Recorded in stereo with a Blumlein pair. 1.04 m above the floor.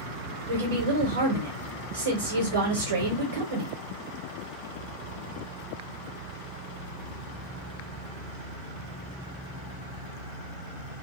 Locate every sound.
0.5 s a woman speaking: 65° right, 1.0 m